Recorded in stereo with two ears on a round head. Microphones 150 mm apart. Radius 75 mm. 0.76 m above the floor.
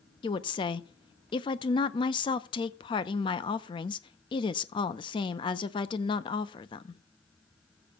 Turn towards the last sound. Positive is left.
turn(degrees=30)  # may be behind; listen again after turning